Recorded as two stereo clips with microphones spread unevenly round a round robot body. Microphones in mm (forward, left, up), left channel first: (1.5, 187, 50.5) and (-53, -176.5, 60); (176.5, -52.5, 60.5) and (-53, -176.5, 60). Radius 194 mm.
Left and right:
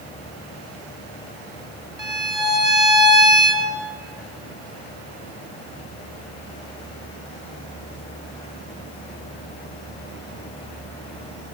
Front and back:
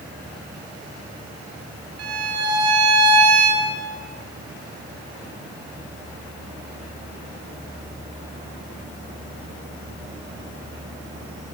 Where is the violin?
155° left, 1.5 m.